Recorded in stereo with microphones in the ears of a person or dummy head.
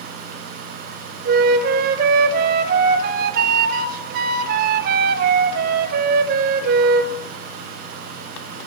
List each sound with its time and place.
1.2 s a flute: 50° right (ahead or behind), 1.0 m